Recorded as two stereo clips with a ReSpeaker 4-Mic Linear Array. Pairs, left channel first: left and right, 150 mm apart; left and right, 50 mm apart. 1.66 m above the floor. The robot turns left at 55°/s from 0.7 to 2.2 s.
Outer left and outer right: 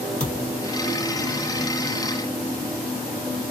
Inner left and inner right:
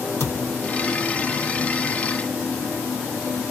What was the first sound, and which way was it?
A thud, 50° left (ahead or behind).